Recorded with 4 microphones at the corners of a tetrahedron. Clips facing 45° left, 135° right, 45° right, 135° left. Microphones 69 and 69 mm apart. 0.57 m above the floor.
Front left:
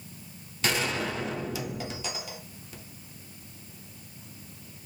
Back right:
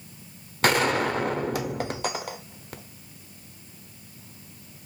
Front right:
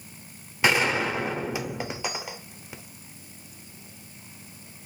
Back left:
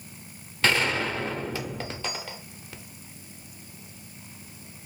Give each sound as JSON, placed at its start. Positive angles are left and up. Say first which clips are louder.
{"t": 0.6, "sound": "a gunshot", "louder": "back right 7 dB, front right 2 dB", "azimuth_deg": -115, "distance_m": 0.6}